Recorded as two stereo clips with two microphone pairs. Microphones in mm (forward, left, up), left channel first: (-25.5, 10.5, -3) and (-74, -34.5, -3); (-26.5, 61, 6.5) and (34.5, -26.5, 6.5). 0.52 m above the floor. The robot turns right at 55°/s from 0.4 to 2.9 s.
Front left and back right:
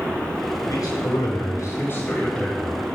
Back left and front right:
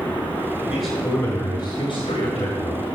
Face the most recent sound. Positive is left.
turn(degrees=150)